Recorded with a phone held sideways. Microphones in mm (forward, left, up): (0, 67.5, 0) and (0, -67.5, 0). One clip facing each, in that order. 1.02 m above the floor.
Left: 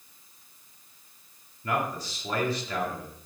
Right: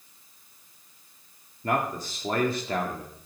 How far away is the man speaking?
About 1.7 m.